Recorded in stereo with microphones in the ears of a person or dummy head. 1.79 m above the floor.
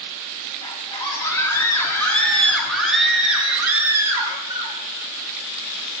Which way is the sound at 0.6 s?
20° left (ahead or behind).